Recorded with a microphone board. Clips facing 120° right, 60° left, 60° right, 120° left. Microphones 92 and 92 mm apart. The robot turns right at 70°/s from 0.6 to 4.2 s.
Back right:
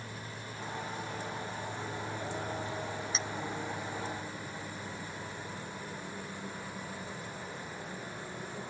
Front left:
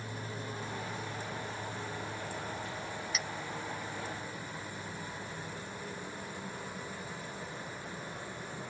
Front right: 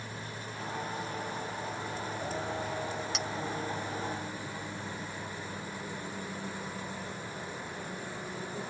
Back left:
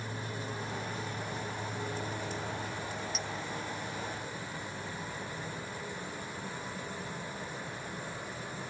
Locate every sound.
0.0 s an aircraft: 75° left; by 8.7 s 50° right
3.1 s a clink: 60° right; by 3.3 s 50° right